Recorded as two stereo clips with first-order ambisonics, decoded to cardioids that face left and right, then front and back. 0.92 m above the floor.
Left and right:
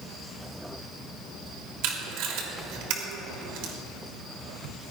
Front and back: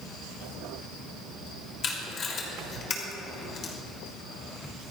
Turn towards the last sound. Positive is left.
turn(degrees=-65)